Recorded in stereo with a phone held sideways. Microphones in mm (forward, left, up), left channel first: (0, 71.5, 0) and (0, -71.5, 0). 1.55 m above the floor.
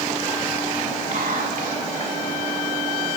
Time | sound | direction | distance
1.1 | whispering | 80° right | 2 m